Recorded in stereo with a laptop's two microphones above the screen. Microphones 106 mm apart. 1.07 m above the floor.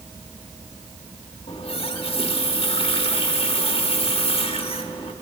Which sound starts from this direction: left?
A running tap, at 1.5 s.